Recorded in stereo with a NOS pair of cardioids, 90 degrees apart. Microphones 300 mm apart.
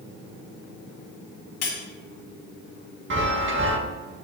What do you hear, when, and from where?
1.6 s cutlery clinking: 60° left, 2.0 m
3.1 s a chime: 40° right, 1.8 m